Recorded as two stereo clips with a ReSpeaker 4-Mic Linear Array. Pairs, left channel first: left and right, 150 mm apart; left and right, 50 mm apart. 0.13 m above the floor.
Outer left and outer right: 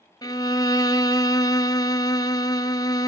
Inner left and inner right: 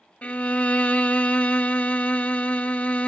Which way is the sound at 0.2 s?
30° left (ahead or behind).